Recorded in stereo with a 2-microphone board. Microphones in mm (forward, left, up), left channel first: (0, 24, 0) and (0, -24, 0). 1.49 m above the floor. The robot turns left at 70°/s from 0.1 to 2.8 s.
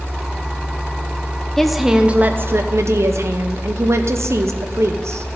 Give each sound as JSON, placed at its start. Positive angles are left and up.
{"t": 1.6, "sound": "a woman speaking", "azimuth_deg": 10, "distance_m": 0.9}